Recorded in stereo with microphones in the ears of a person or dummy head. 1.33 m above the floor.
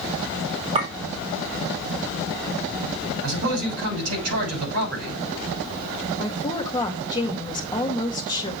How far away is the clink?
About 2.0 m.